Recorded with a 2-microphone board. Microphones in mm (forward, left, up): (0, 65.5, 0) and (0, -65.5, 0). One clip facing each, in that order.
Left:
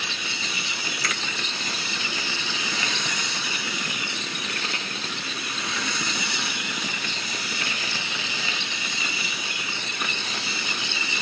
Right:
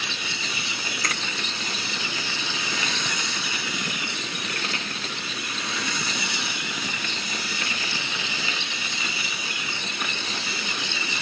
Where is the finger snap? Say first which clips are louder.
Right 1 dB; 40° right (ahead or behind), 1.5 m.